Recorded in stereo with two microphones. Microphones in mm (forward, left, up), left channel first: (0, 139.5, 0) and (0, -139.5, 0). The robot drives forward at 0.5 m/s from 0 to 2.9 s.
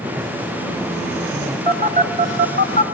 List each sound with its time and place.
1.7 s a phone buzzing: 25° right (ahead or behind), 1.2 m; by 2.8 s 35° right (ahead or behind), 1.0 m